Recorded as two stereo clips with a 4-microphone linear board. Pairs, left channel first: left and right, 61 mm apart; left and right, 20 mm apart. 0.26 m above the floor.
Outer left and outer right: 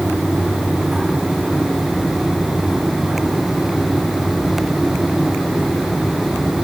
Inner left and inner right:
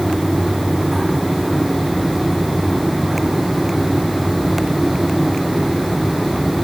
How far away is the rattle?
No rattle in this recording.